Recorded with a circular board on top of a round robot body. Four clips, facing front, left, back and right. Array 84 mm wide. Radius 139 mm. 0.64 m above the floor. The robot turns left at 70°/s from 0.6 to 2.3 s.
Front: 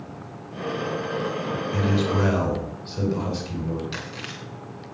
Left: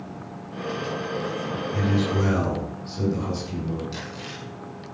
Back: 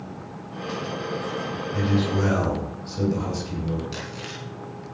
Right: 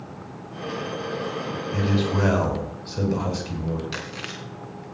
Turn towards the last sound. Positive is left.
turn(degrees=-65)